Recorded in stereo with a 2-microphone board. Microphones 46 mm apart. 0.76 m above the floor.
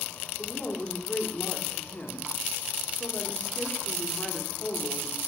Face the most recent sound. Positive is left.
turn(degrees=30)  # may be behind; listen again after turning